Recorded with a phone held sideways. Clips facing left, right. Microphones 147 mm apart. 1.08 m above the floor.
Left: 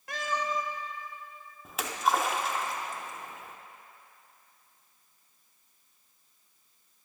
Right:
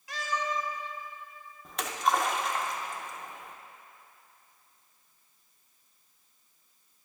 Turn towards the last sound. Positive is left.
turn(degrees=5)  # may be behind; listen again after turning